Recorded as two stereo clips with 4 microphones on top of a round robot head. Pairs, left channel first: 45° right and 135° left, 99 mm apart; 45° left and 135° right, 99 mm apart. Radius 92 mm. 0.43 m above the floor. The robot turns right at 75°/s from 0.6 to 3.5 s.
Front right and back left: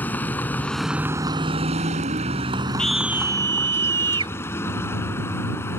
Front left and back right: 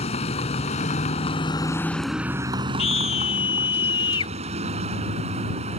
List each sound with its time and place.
0.0 s a vehicle: 30° left; by 5.8 s 115° right
2.8 s a scream: 35° left; by 4.3 s 90° left